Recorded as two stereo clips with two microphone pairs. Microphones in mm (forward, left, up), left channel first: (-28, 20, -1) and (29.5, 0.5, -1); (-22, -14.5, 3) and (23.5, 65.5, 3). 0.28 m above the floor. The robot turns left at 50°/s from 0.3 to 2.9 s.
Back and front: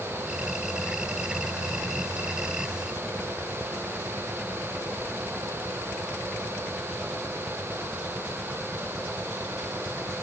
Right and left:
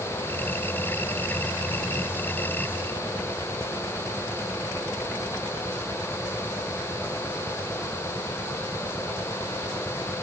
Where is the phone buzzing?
No phone buzzing in this recording.